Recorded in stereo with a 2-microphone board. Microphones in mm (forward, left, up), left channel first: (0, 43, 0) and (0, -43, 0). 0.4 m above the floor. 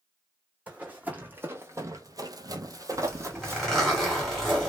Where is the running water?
No running water in this recording.